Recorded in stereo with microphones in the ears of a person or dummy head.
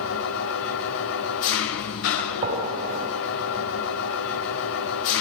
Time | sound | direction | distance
0.0 | an engine running | 60° left (ahead or behind) | 2 m
2.2 | a gunshot | 35° right (ahead or behind) | 8 m